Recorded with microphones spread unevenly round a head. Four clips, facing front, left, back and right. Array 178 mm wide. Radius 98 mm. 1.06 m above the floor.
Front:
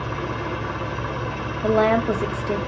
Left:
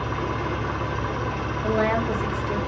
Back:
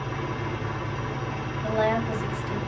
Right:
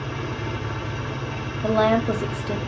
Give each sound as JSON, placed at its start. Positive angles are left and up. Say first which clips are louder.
{"t": 0.0, "sound": "an engine running", "louder": "left 3 dB, front 4 dB", "azimuth_deg": 35, "distance_m": 0.8}
{"t": 1.6, "sound": "a woman speaking", "louder": "right 4 dB, front 6 dB", "azimuth_deg": -35, "distance_m": 0.7}